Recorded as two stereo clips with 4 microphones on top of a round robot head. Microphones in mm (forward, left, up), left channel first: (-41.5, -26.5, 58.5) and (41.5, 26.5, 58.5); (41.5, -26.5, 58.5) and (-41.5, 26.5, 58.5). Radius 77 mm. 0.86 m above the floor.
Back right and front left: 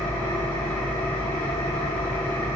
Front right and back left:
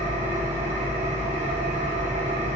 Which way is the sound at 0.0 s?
140° left.